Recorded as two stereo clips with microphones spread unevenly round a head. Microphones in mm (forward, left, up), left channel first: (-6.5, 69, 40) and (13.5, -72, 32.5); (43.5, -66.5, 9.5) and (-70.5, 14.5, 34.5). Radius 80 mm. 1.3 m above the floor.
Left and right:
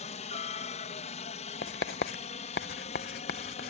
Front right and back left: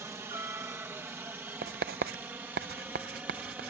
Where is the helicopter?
70° left; by 3.7 s 65° left.